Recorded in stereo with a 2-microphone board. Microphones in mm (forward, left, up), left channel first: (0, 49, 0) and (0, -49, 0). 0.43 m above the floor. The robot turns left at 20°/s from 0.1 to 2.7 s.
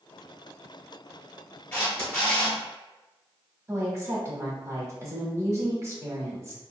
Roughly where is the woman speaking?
Right.